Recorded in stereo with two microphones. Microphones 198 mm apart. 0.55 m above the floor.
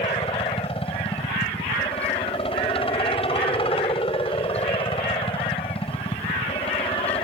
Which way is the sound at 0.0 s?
30° left (ahead or behind).